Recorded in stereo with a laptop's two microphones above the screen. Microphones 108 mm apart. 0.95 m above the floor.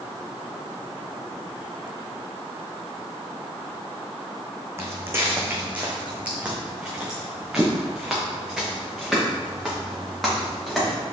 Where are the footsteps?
25° right (ahead or behind), 3 m; by 10.9 s 5° left (ahead or behind), 6.5 m.